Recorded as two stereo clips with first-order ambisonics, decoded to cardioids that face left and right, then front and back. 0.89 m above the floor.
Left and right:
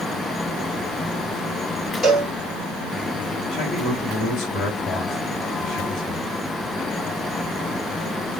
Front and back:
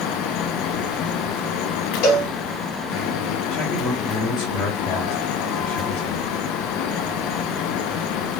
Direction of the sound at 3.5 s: 40° left.